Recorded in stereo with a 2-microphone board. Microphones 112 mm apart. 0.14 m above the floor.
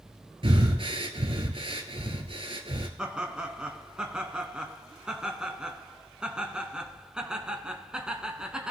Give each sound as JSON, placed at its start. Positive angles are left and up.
{"t": 0.4, "sound": "breathing", "side_deg": -55, "distance_m": 1.0}
{"t": 3.0, "sound": "laughter", "side_deg": -10, "distance_m": 1.1}